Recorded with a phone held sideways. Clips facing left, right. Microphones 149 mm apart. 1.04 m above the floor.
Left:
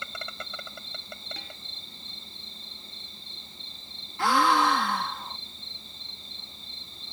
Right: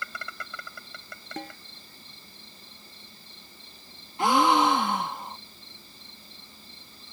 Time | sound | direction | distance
0.0 | an insect | 25° left (ahead or behind) | ?
1.4 | a snare drum | 55° right (ahead or behind) | ?
4.2 | a gasp | 25° right (ahead or behind) | ?